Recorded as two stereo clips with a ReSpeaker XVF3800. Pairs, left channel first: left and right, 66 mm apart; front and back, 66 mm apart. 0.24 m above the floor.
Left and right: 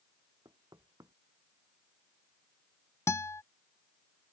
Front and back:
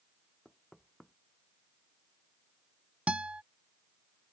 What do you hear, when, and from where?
0.5 s knocking: 85° right
3.1 s a guitar: 115° left